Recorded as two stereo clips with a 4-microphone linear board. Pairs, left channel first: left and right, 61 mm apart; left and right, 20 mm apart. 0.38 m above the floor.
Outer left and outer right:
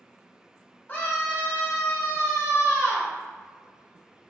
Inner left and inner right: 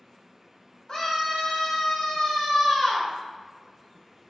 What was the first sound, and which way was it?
A scream, 35° left (ahead or behind).